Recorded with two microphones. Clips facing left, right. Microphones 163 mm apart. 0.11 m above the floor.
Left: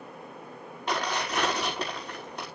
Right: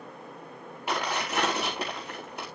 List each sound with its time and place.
0.9 s tearing paper: 5° right (ahead or behind), 5 m